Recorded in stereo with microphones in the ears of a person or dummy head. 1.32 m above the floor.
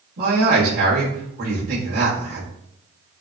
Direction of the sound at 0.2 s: 50° right (ahead or behind).